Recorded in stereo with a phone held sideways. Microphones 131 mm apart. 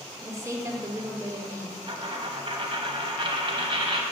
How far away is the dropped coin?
About 0.8 m.